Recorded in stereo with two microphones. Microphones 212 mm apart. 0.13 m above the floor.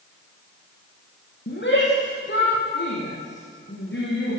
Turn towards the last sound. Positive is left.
turn(degrees=55)  # may be behind; listen again after turning